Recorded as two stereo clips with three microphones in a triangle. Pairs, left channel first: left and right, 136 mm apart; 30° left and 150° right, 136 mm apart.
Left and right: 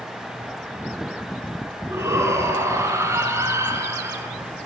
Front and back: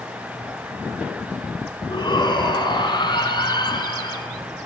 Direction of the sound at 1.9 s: 20° right.